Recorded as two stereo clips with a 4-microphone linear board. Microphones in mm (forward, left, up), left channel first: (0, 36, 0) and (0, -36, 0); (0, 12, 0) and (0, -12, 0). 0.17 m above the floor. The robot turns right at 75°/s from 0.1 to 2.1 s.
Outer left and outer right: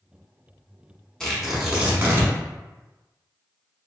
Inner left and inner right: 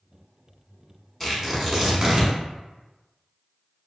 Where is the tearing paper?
10° left (ahead or behind), 0.8 m; by 2.3 s 30° right (ahead or behind), 0.8 m.